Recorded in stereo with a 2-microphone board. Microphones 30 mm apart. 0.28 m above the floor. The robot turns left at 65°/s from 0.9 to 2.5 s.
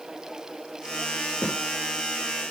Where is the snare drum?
55° left (ahead or behind), 7.5 m; by 1.6 s 65° left (ahead or behind), 7.5 m.